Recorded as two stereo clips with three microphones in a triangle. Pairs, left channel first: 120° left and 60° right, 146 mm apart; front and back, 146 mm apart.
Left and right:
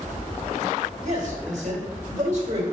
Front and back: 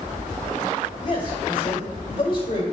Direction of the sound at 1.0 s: 45° right.